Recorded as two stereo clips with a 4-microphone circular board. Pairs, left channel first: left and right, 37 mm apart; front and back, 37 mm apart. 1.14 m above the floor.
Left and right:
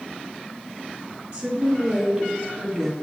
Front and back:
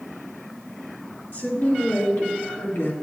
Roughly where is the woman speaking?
Ahead right.